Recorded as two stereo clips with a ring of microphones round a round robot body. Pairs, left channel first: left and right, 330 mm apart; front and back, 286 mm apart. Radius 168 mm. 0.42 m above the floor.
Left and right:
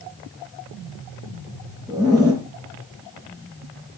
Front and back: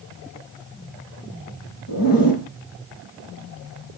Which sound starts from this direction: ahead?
A zipper, at 1.9 s.